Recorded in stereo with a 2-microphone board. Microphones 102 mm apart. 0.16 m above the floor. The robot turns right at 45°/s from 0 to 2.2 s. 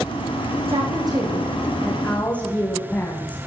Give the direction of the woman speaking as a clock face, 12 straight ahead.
2 o'clock.